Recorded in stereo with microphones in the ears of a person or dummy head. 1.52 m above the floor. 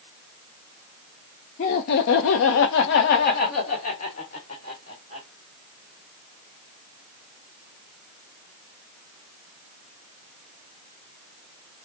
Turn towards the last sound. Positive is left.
turn(degrees=30)  # may be behind; listen again after turning